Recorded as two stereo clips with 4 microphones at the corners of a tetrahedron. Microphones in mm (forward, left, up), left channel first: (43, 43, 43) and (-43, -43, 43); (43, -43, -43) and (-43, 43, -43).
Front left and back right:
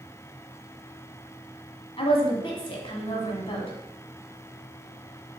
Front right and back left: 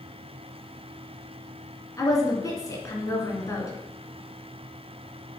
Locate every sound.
2.0 s a woman speaking: 10° left, 1.8 m